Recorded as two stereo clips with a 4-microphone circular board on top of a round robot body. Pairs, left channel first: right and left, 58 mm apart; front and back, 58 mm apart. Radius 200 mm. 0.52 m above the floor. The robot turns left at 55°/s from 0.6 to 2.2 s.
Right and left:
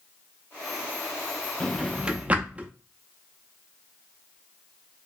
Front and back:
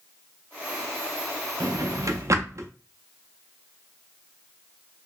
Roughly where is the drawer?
Behind.